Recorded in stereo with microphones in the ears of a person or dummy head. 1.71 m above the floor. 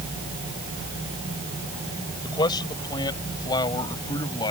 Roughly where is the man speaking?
Left.